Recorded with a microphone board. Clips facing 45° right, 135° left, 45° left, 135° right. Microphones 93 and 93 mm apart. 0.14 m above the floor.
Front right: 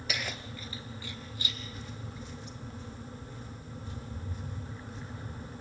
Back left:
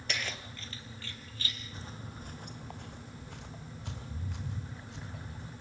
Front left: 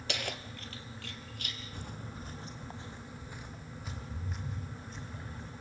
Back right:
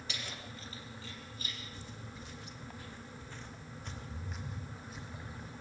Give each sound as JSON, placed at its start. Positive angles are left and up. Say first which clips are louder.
{"t": 0.1, "sound": "keys jangling", "louder": "front right 1 dB, front left 8 dB", "azimuth_deg": 40, "distance_m": 1.6}
{"t": 1.7, "sound": "footsteps", "louder": "front right 2 dB, front left 4 dB", "azimuth_deg": 75, "distance_m": 2.0}